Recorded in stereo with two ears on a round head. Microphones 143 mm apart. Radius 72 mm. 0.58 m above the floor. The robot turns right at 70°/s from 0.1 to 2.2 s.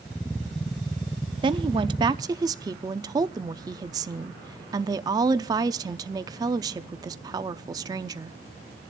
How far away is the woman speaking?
About 0.6 m.